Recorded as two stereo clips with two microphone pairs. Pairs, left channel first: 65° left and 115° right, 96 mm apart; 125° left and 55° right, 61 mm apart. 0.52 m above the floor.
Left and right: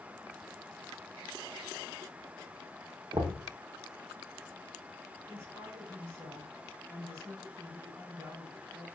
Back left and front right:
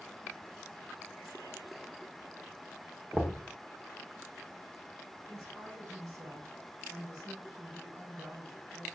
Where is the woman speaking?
60° right, 4.5 m.